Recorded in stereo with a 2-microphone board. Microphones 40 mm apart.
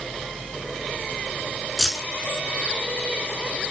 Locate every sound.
1.8 s keys jangling: 10° left (ahead or behind), 1.0 m